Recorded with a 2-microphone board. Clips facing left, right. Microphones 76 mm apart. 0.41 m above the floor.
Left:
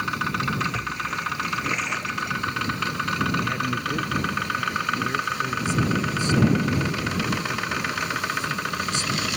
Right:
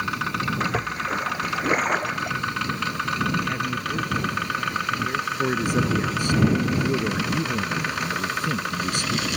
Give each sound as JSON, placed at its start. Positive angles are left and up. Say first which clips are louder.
{"t": 0.6, "sound": "a splash", "louder": "right 2 dB", "side_deg": -45}
{"t": 3.4, "sound": "a man speaking", "louder": "even", "side_deg": 0}
{"t": 5.4, "sound": "a man speaking", "louder": "right 2 dB", "side_deg": -55}